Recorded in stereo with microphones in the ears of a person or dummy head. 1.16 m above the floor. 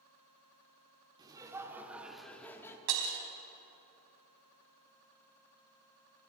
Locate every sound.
1.2 s laughter: 20° right (ahead or behind), 3.5 m; by 2.8 s 15° left (ahead or behind), 2.5 m
2.9 s breaking glass: 85° right, 4 m